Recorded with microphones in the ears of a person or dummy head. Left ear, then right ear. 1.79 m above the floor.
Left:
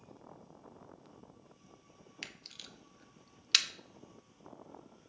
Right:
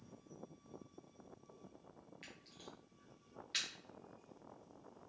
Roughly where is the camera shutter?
Left.